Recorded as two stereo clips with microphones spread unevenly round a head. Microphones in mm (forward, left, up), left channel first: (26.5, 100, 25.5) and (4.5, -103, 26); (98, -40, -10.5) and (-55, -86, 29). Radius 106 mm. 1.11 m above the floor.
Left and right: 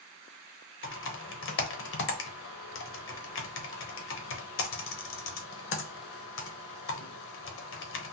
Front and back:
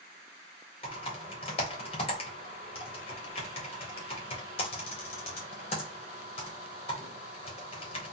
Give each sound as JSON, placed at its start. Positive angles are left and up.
{"t": 0.8, "sound": "typing on a keyboard", "azimuth_deg": 70, "distance_m": 0.9}